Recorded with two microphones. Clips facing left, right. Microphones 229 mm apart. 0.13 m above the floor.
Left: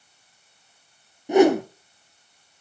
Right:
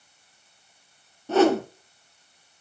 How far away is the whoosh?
About 1.5 m.